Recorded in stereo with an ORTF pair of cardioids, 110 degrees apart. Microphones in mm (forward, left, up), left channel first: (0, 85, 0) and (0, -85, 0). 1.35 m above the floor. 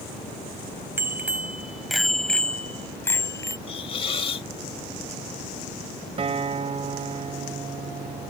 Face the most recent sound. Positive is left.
turn(degrees=-35)